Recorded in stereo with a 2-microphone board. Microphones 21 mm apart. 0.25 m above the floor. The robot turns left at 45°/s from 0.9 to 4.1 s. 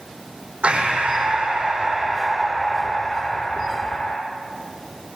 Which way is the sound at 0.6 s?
105° right.